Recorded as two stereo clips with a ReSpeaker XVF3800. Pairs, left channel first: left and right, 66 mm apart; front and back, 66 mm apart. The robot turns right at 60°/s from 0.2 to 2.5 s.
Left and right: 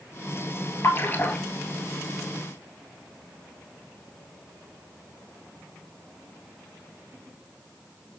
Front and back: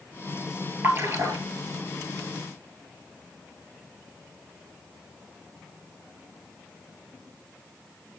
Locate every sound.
0.8 s a splash: 130° left, 1.4 m; by 1.4 s 165° left, 1.4 m